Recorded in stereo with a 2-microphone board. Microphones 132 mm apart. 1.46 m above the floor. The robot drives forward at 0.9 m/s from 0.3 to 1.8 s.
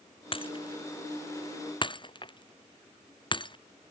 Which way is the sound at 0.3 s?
45° left (ahead or behind).